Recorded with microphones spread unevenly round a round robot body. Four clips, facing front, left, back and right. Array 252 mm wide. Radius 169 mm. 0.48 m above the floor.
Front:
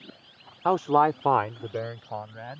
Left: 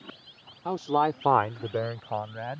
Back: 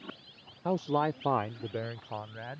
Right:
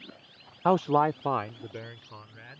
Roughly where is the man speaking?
Ahead.